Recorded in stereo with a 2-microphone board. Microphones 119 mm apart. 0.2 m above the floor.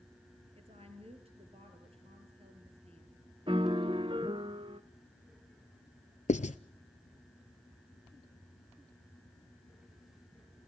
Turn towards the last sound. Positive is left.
turn(degrees=85)